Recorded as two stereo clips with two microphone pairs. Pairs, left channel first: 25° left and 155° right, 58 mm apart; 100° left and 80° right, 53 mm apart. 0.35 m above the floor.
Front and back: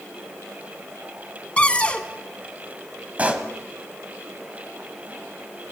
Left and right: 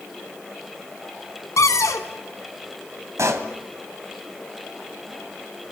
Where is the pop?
95° right, 1.8 m.